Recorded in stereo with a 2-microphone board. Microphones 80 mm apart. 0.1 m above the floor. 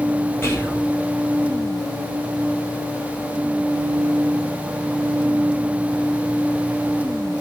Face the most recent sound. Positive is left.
turn(degrees=30)  # may be behind; listen again after turning